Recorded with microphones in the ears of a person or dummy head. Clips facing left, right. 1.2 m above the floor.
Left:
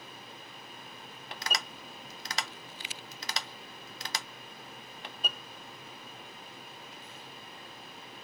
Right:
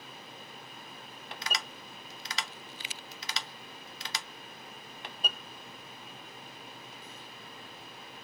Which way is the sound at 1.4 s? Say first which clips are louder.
Left 2 dB; 40° left (ahead or behind).